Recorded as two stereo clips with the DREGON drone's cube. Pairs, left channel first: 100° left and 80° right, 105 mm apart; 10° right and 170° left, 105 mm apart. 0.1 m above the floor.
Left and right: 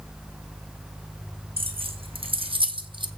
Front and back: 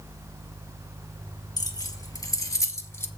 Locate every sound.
1.6 s keys jangling: 60° right, 2.5 m; by 3.1 s 70° right, 1.3 m